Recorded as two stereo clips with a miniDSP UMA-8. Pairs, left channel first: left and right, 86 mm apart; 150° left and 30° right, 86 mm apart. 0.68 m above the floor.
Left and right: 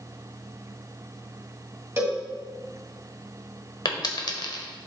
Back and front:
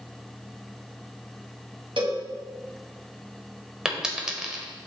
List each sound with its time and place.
2.0 s a cowbell: 30° right, 2.5 m
3.9 s a dropped coin: 55° left, 1.0 m